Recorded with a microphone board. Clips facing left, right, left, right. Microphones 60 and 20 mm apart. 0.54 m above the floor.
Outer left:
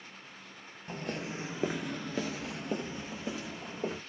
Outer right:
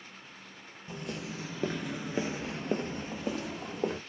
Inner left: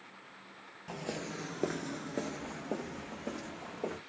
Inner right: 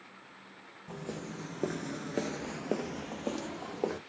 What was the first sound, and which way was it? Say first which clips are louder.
Footsteps: outer left 2 dB, inner left 2 dB; 45° left (ahead or behind).